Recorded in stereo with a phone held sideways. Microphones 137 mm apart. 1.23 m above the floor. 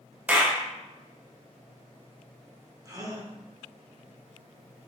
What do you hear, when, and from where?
0.3 s a clap: 10° right (ahead or behind), 0.5 m
2.9 s a gasp: 25° right (ahead or behind), 0.5 m